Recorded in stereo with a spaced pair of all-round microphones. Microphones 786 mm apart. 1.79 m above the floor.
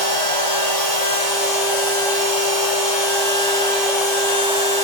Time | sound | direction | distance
0.0 | a machine running | 50° right (ahead or behind) | 3 m